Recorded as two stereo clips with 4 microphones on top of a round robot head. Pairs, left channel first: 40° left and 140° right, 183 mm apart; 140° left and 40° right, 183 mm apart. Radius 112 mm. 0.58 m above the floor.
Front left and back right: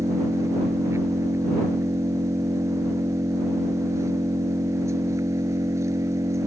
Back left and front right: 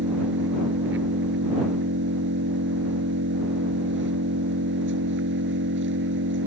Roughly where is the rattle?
No rattle in this recording.